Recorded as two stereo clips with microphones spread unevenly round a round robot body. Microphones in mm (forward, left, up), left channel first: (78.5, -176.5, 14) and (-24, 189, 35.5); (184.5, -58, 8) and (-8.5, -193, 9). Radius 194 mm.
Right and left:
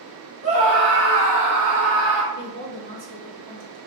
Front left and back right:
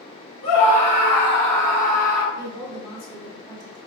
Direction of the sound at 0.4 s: 30° left.